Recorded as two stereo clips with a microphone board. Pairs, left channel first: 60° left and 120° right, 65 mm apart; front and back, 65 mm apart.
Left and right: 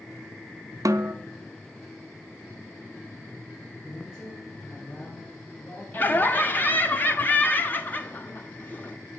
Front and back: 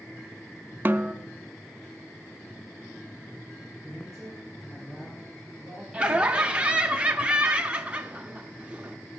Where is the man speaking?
95° left, 7 m.